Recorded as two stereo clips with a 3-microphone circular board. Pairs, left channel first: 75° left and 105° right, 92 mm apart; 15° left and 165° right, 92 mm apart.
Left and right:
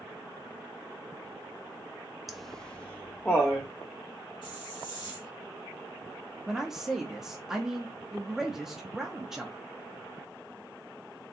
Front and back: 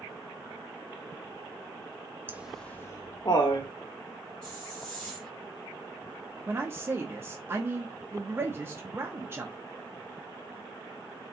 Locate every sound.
2.3 s laughter: 170° left, 0.7 m; by 3.7 s 5° left, 1.3 m
4.4 s a hiss: 95° left, 2.5 m
6.5 s a man speaking: 175° left, 0.8 m